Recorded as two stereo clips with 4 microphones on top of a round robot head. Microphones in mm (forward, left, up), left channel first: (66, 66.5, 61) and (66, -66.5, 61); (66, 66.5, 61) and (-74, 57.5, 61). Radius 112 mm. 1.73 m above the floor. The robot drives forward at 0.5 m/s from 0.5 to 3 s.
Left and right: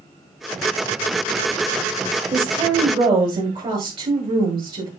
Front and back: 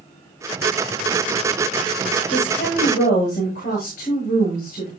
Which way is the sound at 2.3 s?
40° right.